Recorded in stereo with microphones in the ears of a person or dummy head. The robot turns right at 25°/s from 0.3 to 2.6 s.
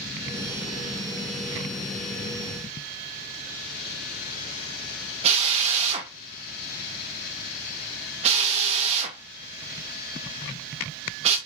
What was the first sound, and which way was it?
A drill, 35° right (ahead or behind).